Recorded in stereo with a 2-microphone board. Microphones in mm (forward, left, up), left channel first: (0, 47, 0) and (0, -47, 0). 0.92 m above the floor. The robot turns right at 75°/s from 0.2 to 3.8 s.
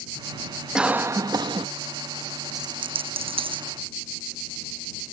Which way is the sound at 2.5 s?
40° right (ahead or behind).